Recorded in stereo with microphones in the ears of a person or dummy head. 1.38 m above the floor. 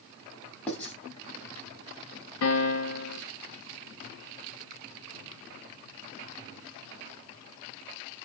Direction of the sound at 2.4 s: 80° left.